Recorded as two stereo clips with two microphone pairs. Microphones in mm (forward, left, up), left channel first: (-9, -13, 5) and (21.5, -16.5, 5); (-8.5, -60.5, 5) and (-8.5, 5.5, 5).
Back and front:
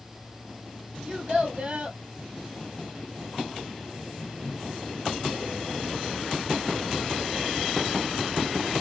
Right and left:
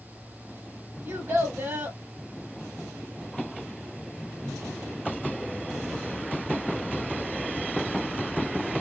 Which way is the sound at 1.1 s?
35° left.